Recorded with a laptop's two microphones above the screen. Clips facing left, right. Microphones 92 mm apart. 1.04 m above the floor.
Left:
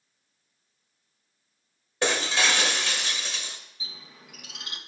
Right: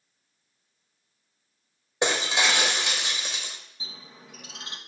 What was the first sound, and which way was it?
Breaking glass, 20° right (ahead or behind).